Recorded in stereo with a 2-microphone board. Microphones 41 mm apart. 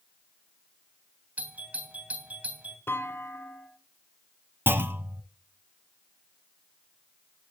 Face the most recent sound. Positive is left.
turn(degrees=-60)  # may be behind; listen again after turning